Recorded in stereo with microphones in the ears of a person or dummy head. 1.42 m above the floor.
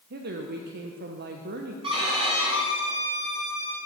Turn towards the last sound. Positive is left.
turn(degrees=-25)  # may be behind; listen again after turning